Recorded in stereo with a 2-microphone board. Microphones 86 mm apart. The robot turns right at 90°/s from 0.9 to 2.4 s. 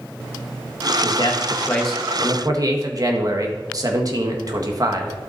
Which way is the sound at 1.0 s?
100° left.